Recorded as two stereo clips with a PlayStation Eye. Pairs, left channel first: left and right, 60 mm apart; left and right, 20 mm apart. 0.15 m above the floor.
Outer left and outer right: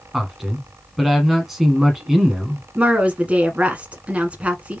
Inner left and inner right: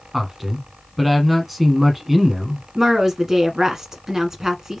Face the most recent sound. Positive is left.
turn(degrees=-20)  # may be behind; listen again after turning